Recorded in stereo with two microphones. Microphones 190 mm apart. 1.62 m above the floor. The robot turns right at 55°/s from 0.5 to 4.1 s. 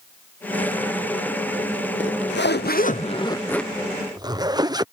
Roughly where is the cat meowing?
No cat meowing in this recording.